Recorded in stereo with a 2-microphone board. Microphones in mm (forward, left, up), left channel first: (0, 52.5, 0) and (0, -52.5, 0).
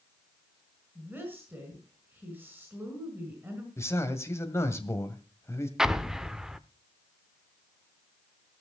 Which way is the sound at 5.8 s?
5° right (ahead or behind).